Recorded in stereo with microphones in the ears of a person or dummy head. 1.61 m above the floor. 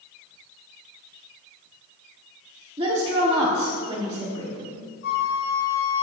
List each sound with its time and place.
2.8 s a woman speaking: 25° right (ahead or behind), 1.2 m
5.0 s a flute: 60° left (ahead or behind), 1.2 m